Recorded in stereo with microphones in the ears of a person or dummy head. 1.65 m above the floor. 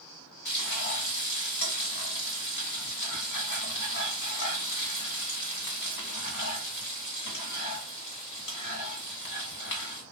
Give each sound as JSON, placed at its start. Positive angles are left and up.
{"t": 0.5, "sound": "frying", "side_deg": 75, "distance_m": 2.0}